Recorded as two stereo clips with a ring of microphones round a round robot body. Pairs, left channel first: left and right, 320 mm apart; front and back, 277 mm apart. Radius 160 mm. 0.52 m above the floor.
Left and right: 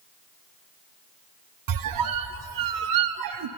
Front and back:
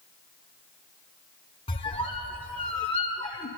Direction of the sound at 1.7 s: 75° right.